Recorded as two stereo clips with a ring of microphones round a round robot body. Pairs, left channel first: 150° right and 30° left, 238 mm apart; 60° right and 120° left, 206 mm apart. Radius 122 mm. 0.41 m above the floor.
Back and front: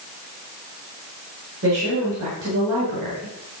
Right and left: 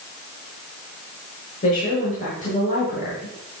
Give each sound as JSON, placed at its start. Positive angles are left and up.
{"t": 1.6, "sound": "a woman speaking", "azimuth_deg": -5, "distance_m": 6.0}